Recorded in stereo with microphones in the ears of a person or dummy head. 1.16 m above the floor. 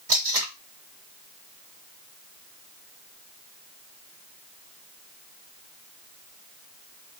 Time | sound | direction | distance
0.1 | tape being pulled | 15° right (ahead or behind) | 1.0 m